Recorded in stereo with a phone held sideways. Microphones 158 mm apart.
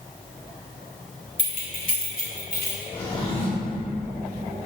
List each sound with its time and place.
1.4 s keys jangling: 55° left (ahead or behind), 1.9 m; by 2.8 s 70° left (ahead or behind), 3.5 m
2.9 s a drawer: 40° left (ahead or behind), 2 m